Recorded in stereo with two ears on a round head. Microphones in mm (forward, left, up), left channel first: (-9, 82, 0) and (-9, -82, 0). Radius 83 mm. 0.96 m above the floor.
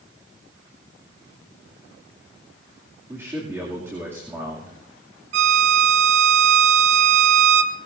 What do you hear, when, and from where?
3.1 s a man speaking: 15° right (ahead or behind), 2.5 m
5.3 s a violin: 70° right (ahead or behind), 1.5 m